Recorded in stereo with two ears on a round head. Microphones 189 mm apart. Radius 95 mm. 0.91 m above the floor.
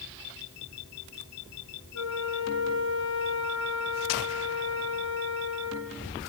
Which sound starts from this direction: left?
A flute, at 1.9 s.